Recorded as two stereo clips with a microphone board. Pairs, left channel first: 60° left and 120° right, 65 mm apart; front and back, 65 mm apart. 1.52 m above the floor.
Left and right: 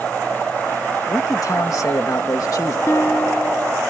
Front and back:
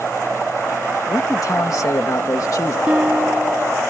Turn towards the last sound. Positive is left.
turn(degrees=105)